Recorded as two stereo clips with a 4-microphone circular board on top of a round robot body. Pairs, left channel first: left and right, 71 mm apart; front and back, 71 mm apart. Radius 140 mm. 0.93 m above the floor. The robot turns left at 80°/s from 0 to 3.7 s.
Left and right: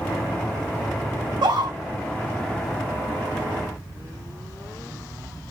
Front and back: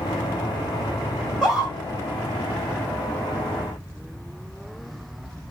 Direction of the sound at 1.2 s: 75° right.